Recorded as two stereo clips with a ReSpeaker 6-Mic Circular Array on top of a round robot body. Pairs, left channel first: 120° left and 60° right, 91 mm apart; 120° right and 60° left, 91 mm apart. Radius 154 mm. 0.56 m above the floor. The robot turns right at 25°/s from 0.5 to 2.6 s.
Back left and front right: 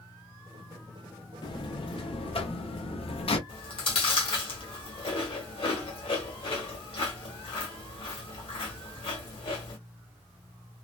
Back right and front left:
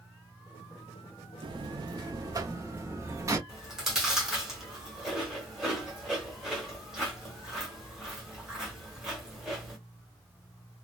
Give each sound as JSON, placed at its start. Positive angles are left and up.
{"t": 1.4, "sound": "a buzzer", "azimuth_deg": 85, "distance_m": 0.7}
{"t": 3.5, "sound": "chewing", "azimuth_deg": 145, "distance_m": 1.3}